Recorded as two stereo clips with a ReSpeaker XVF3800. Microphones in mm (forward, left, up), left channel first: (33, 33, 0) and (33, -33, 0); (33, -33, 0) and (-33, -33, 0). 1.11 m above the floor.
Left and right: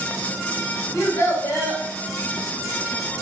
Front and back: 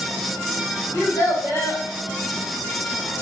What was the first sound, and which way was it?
A child speaking, 45° left.